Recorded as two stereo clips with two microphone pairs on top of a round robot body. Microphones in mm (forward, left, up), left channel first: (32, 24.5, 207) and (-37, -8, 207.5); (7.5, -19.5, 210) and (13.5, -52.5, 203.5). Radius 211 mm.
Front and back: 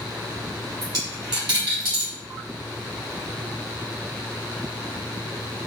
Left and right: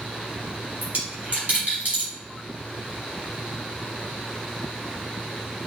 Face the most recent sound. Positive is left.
turn(degrees=-125)